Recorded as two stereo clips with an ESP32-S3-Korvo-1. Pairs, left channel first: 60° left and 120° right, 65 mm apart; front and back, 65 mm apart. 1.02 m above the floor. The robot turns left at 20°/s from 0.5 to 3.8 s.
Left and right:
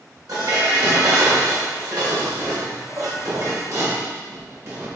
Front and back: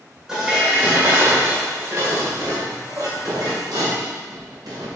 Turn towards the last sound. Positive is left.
turn(degrees=-165)